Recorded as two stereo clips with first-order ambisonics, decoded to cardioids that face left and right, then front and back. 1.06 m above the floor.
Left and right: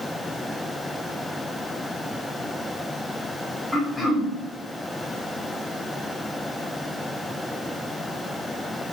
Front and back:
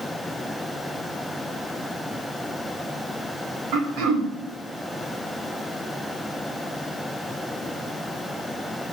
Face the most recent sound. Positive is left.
turn(degrees=180)